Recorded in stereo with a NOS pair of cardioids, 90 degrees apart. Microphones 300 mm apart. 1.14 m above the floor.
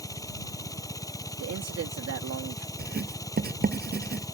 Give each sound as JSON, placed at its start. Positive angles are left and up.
{"t": 0.0, "sound": "a machine running", "azimuth_deg": 10}
{"t": 1.4, "sound": "a man speaking", "azimuth_deg": -50}
{"t": 2.8, "sound": "writing", "azimuth_deg": -30}